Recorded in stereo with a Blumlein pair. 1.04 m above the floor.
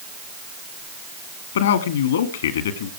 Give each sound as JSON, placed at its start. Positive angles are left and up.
{"t": 1.6, "sound": "a man speaking", "azimuth_deg": 60, "distance_m": 1.9}